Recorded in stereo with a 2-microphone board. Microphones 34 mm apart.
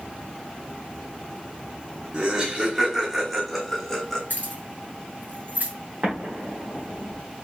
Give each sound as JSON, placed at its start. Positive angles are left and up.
{"t": 2.1, "sound": "laughter", "side_deg": -30, "distance_m": 0.8}
{"t": 4.3, "sound": "keys jangling", "side_deg": -70, "distance_m": 1.9}
{"t": 6.0, "sound": "an explosion", "side_deg": -45, "distance_m": 1.3}